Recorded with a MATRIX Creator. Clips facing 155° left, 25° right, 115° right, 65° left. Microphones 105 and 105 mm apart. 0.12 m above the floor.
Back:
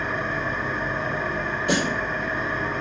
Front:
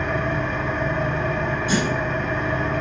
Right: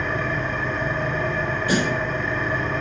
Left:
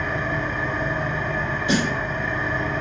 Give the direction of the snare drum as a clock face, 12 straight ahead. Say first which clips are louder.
Even, even; 8 o'clock.